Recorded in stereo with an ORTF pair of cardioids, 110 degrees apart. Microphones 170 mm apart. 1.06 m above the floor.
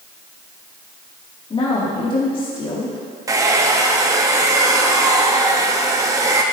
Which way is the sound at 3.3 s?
20° right.